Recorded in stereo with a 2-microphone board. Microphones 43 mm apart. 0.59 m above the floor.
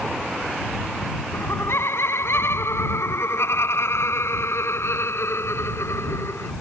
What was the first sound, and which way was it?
Laughter, 70° left (ahead or behind).